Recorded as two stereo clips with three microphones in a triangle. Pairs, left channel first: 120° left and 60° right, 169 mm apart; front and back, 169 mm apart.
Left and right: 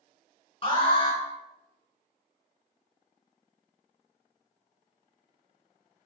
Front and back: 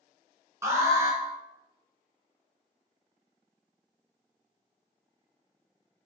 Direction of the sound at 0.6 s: 120° left.